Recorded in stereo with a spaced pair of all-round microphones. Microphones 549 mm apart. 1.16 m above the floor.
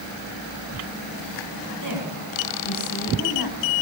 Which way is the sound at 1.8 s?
35° left (ahead or behind).